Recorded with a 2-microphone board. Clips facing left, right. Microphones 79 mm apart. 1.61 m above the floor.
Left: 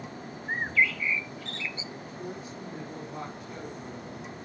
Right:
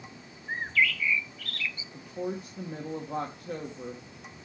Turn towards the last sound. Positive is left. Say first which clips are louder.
# right 4 dB
turn(degrees=-75)  # may be behind; listen again after turning